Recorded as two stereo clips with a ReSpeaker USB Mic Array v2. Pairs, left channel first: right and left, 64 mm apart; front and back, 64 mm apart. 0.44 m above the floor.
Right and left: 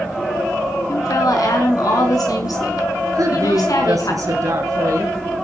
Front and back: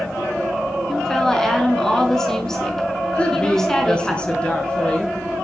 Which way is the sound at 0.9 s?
80° right.